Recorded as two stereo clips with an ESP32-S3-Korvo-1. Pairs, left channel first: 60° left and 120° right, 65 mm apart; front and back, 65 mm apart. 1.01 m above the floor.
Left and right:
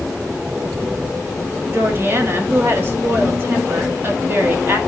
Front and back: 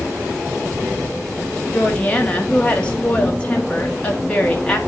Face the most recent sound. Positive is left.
turn(degrees=-70)